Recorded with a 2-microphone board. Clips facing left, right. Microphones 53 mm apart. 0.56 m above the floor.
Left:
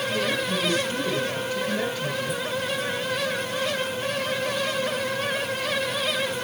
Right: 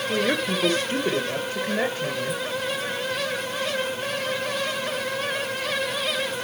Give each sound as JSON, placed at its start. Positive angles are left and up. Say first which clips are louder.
{"t": 0.1, "sound": "a woman speaking", "louder": "right 4 dB", "side_deg": -60, "distance_m": 2.0}